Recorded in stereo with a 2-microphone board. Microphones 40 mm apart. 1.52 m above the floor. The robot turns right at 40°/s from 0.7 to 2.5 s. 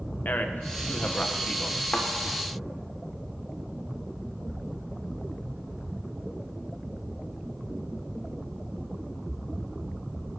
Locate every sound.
0.2 s a man speaking: 130° left, 1.3 m; by 1.8 s 175° left, 1.3 m
1.9 s a thud: 35° left (ahead or behind), 1.7 m; by 2.1 s 40° left (ahead or behind), 1.7 m